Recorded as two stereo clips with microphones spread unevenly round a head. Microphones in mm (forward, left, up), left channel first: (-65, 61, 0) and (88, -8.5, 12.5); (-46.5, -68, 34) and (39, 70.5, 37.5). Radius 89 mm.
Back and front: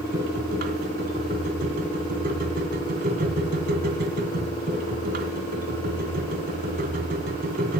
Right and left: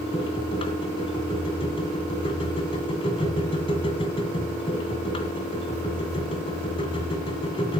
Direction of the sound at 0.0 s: 60° right.